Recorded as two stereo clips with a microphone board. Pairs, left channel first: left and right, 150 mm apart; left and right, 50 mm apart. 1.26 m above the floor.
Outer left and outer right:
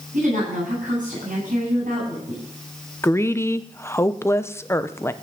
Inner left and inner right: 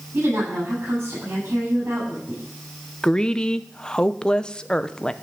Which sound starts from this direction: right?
A woman speaking, at 0.1 s.